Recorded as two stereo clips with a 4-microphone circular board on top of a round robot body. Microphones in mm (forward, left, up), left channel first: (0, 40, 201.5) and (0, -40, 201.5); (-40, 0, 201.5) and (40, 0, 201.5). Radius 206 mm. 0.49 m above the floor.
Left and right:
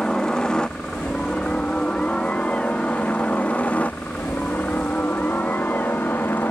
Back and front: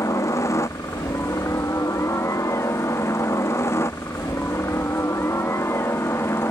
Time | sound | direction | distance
0.0 | a helicopter | 165° left | ?